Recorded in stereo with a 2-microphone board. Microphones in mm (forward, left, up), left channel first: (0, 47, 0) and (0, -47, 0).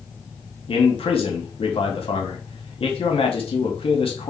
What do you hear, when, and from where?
0.7 s a man speaking: 75° left (ahead or behind), 2 m